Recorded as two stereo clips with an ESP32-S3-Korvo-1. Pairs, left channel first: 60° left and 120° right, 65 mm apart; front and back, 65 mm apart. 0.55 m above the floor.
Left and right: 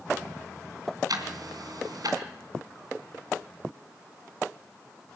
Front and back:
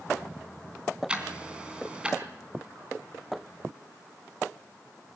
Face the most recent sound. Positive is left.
turn(degrees=-105)